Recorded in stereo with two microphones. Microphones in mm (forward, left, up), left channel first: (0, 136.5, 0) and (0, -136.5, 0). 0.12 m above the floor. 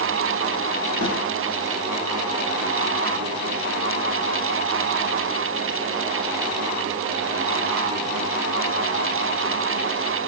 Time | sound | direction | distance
1.0 | a snare drum | 65° right (ahead or behind) | 4.5 m